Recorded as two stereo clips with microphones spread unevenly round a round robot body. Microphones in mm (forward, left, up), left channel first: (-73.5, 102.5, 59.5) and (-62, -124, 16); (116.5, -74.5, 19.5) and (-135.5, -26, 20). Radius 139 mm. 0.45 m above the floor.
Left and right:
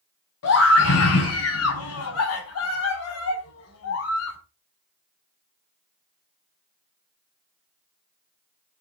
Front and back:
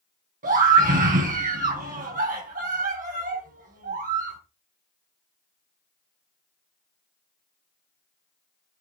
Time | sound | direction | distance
0.4 | a scream | 105° left | 4.5 m